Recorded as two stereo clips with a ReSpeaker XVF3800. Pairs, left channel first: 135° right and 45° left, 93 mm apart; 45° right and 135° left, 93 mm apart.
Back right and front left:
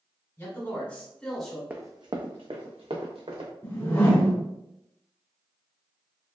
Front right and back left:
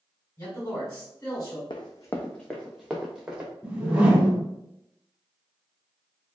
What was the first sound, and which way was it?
A man speaking, 90° right.